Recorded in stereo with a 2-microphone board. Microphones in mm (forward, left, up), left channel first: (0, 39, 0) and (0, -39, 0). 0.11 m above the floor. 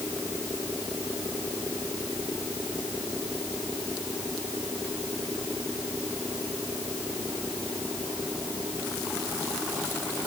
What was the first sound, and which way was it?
Only background noise.